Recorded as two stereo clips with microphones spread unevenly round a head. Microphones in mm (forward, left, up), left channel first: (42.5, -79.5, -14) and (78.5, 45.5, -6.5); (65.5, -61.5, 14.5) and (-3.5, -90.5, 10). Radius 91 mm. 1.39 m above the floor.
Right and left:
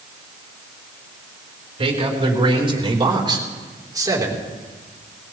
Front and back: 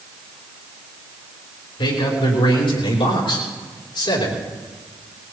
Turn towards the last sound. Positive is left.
turn(degrees=10)